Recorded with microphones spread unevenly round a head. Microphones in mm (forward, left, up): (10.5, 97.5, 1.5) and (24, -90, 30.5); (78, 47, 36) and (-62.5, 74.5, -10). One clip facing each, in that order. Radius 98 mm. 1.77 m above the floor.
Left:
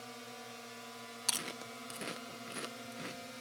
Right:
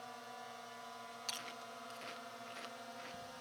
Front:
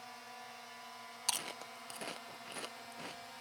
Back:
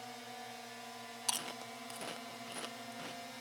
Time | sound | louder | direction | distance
0.0 | a drone | left 2 dB, back 4 dB | 140° left | ?
1.3 | chewing | left 5 dB, back 1 dB | 70° left | ?